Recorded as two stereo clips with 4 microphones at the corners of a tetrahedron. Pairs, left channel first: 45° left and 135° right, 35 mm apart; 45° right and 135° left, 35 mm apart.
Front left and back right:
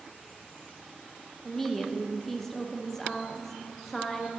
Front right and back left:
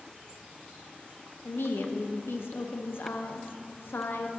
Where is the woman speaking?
35° right, 0.7 m.